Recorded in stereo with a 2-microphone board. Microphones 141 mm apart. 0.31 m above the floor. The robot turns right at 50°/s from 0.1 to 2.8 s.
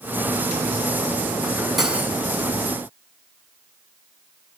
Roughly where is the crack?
No crack in this recording.